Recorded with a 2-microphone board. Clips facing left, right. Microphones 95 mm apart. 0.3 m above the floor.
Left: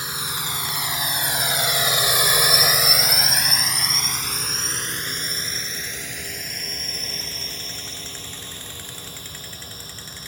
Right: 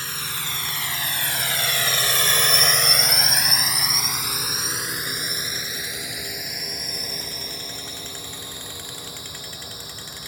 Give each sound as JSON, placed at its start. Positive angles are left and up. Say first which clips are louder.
{"t": 0.0, "sound": "a drone", "louder": "left 2 dB", "side_deg": 15}